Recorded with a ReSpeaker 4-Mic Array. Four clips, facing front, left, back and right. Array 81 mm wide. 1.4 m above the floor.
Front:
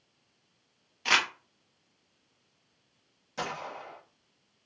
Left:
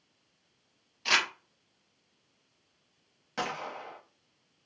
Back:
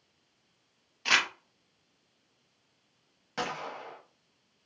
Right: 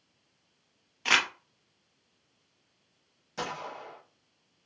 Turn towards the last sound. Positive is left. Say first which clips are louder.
# left 1 dB, back 1 dB
turn(degrees=130)